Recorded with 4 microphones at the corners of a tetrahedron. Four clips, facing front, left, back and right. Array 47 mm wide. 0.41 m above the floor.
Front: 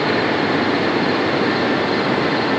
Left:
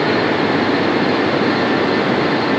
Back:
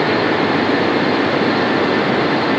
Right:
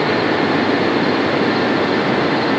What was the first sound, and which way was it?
Only background noise.